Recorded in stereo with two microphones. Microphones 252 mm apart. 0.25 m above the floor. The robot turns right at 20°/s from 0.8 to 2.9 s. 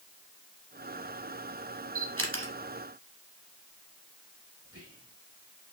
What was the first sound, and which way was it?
A camera shutter, 60° right (ahead or behind).